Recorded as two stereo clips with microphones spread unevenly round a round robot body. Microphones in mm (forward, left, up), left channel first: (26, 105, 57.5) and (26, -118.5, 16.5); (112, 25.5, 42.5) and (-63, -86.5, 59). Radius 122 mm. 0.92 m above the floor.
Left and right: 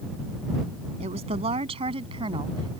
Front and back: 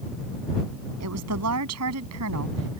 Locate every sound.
1.0 s a woman speaking: 155° right; by 2.8 s 165° right